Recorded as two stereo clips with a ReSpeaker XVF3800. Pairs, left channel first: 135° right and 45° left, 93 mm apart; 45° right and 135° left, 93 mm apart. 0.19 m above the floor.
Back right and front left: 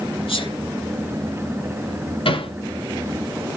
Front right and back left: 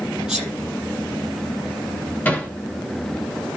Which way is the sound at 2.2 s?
120° right.